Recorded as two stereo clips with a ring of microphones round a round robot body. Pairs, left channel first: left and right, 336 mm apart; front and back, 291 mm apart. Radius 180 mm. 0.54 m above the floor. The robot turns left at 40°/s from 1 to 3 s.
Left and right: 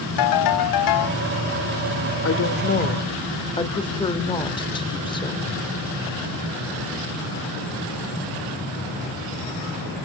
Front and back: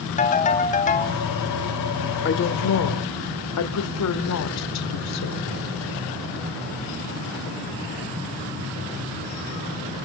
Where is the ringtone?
65° left, 3 m; by 1.2 s 60° left, 3 m.